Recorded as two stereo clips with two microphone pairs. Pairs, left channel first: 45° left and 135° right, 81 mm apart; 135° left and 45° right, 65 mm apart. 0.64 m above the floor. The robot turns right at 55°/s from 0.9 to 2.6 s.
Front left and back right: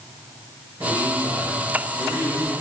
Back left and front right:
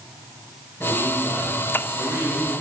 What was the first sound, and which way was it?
A man speaking, 175° right.